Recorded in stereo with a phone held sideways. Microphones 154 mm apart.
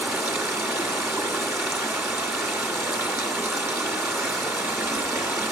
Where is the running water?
20° right (ahead or behind), 1.9 m.